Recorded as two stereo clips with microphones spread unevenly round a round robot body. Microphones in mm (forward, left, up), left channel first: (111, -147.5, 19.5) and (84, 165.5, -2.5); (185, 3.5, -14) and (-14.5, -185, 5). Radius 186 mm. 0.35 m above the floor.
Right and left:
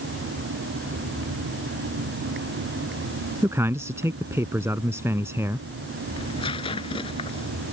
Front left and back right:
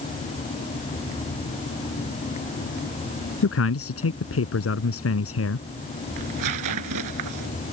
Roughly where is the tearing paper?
Behind.